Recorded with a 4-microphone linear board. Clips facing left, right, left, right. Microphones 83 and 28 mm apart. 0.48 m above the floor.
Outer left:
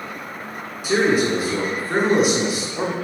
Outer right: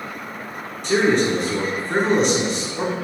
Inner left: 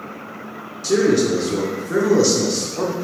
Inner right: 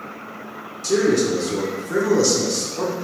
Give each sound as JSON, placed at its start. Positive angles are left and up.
{"t": 0.8, "sound": "a man speaking", "side_deg": 5, "distance_m": 0.7}